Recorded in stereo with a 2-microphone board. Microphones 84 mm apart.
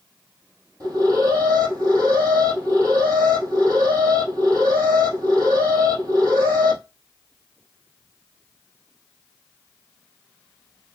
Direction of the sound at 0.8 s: 40° right (ahead or behind).